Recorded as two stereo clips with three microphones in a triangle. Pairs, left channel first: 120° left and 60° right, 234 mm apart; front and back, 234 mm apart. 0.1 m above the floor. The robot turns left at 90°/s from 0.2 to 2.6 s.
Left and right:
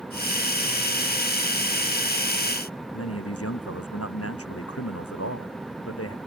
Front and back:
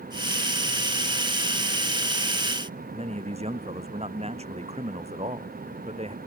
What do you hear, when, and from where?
2.9 s a man speaking: 115° left